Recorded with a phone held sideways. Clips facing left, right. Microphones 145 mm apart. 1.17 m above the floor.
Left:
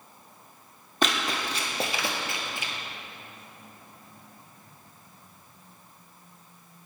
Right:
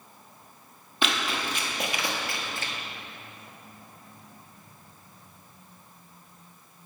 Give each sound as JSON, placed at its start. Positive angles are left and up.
{"t": 1.0, "sound": "running footsteps", "side_deg": 45, "distance_m": 1.6}